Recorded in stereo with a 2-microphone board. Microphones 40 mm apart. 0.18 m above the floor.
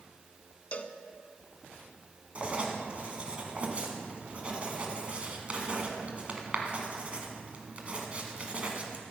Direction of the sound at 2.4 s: 30° right (ahead or behind).